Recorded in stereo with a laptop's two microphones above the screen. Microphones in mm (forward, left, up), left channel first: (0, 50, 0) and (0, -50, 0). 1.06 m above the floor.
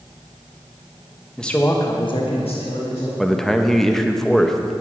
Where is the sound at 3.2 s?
5° left (ahead or behind), 0.7 m.